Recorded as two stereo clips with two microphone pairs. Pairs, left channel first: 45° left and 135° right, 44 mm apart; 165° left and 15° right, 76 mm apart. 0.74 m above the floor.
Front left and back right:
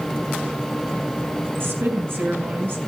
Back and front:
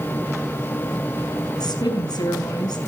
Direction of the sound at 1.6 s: 165° right.